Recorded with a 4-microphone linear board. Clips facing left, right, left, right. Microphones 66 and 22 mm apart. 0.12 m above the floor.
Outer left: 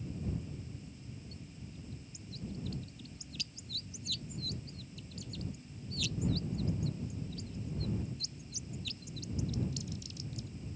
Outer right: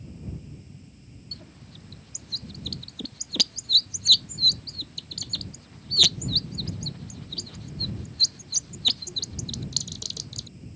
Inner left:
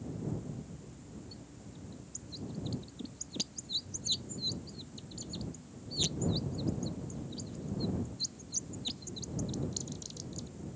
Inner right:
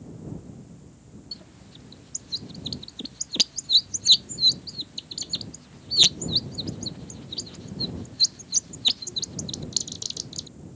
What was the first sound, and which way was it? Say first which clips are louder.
A bird: outer right 2 dB, inner right 8 dB; 70° right (ahead or behind).